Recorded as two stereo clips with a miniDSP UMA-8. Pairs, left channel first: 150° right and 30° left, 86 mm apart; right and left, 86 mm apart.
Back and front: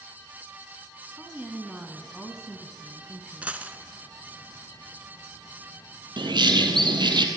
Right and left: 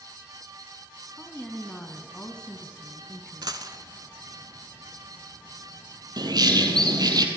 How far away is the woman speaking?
About 1.2 m.